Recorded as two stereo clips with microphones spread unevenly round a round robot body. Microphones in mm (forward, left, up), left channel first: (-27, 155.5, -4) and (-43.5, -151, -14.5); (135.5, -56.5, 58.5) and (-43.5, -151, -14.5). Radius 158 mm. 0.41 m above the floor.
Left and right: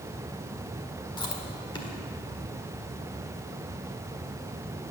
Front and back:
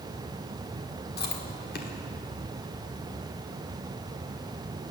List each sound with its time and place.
1.2 s chewing: 20° left, 1.6 m